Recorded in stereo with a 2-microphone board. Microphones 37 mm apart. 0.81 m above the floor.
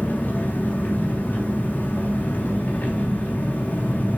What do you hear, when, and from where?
0.0 s an engine running: 55° left (ahead or behind), 4.5 m